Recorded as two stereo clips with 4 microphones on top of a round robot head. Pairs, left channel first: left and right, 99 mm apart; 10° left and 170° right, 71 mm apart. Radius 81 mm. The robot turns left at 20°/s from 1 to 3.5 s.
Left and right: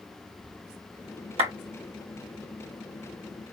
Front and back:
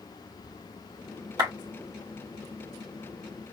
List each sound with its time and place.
1.4 s a clap: 125° right, 2.5 m